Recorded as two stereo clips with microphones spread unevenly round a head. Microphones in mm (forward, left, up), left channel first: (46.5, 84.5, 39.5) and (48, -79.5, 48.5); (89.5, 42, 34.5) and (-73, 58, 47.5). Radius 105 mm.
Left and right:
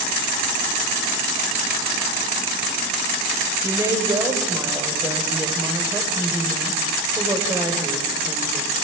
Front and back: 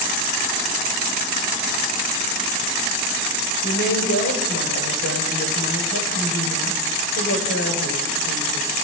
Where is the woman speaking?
20° right, 5.5 m.